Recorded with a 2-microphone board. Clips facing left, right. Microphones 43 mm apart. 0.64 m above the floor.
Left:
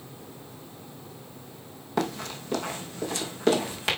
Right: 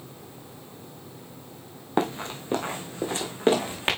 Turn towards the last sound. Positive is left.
turn(degrees=-25)  # may be behind; listen again after turning